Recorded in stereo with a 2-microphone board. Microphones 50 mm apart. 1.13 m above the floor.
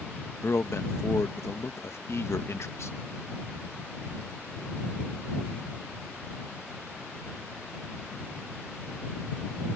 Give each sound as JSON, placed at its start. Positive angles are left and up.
{"t": 0.4, "sound": "a man speaking", "side_deg": 60}